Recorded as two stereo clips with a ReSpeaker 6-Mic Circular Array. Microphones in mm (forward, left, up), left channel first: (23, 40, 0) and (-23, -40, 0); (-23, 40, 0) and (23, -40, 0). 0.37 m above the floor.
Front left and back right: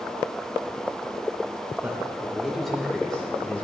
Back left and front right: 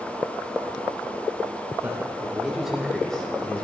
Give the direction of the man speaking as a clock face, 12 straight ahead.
3 o'clock.